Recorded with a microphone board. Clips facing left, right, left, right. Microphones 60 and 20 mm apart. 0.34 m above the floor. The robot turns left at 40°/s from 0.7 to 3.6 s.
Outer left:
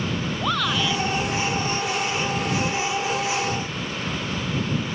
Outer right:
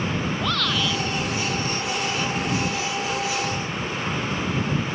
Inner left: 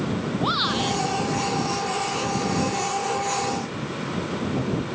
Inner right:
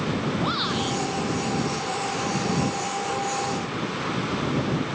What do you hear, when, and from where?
0.4 s a shout: 10° left (ahead or behind); by 1.0 s centre (ahead or behind)